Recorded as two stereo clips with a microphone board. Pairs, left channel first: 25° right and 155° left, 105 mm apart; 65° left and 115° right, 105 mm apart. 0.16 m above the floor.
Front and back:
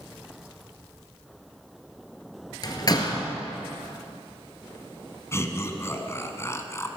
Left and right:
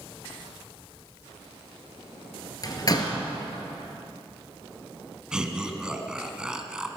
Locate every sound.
2.6 s a door slam: 20° left, 1.9 m
5.3 s laughter: 35° right, 1.3 m